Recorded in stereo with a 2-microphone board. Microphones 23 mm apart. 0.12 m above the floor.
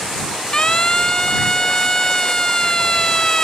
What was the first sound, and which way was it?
A siren, 40° left (ahead or behind).